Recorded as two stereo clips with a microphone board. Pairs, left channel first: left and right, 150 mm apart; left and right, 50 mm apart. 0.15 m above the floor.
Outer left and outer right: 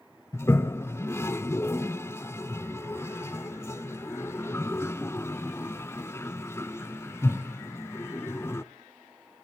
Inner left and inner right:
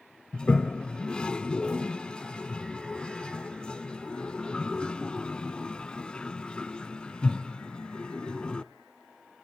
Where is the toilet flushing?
20° left (ahead or behind), 0.5 m.